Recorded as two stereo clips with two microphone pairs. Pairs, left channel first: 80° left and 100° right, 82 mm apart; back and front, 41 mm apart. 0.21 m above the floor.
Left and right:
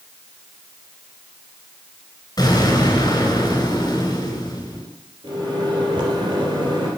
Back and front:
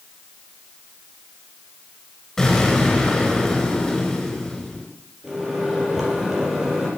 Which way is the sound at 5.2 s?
90° right.